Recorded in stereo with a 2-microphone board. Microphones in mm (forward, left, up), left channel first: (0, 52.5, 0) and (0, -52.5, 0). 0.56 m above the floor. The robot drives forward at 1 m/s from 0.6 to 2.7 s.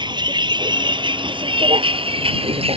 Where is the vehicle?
45° right (ahead or behind); by 2.8 s 65° right (ahead or behind).